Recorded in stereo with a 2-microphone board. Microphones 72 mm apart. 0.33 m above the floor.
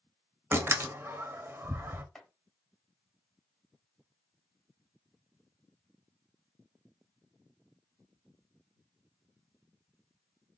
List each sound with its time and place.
0.5 s a door slam: 35° right (ahead or behind), 0.7 m
2.1 s chopping: 5° left (ahead or behind), 1.3 m